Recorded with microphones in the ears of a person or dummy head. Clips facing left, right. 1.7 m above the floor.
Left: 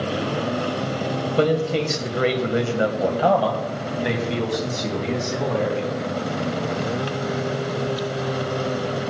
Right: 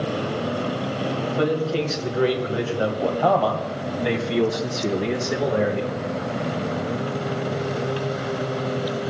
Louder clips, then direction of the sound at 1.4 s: Left 3 dB; 55° left (ahead or behind).